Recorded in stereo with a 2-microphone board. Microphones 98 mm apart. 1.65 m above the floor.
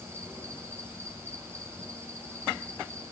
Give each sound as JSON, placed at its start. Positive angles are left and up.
{"t": 0.0, "sound": "an insect", "side_deg": -25, "distance_m": 6.0}